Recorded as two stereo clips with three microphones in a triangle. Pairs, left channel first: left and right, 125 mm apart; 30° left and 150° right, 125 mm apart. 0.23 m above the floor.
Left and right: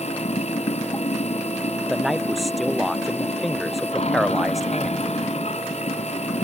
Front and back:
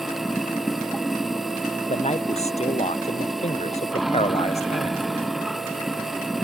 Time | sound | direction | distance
0.0 | running water | 120° left | ?
1.9 | a man speaking | straight ahead | ?